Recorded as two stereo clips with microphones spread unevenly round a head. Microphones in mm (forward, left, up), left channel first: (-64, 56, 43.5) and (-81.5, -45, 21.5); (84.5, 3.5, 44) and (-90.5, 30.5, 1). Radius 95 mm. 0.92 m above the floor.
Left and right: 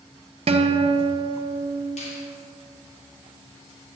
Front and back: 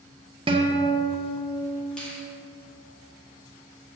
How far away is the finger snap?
About 2.0 m.